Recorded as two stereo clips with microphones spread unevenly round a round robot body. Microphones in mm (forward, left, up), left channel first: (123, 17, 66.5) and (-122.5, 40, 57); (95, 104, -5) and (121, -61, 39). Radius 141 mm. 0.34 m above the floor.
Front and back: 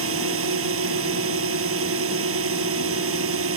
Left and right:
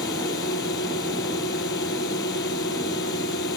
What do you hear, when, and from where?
0.0 s a drone: 140° left